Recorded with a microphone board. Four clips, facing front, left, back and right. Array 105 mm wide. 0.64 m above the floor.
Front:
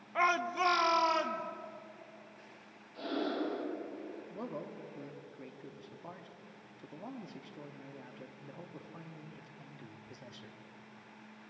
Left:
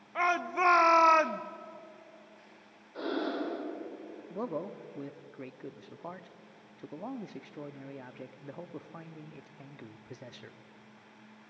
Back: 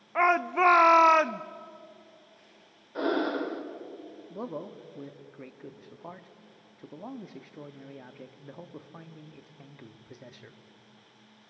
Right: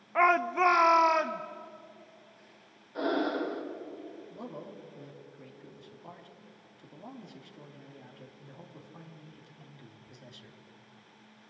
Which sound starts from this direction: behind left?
A man speaking, at 4.3 s.